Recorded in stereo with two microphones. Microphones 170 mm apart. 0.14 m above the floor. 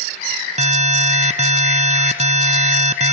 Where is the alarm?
45° right (ahead or behind), 1.3 m.